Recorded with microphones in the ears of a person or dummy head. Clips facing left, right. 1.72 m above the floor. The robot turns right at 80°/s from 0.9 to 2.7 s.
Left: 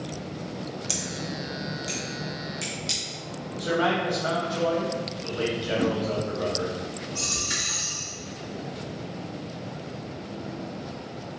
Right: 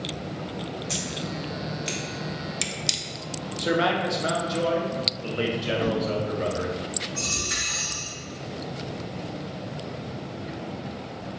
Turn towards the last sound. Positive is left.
turn(degrees=35)  # may be behind; listen again after turning